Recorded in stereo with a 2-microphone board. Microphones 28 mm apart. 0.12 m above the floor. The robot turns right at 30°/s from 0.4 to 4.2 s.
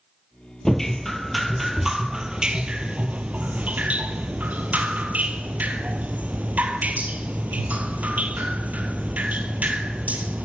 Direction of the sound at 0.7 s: 165° left.